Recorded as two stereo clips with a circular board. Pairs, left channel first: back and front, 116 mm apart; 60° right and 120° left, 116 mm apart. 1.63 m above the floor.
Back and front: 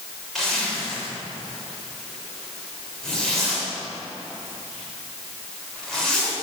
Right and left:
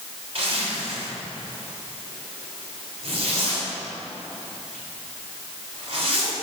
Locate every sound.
0.3 s a zipper: 95° left, 3.5 m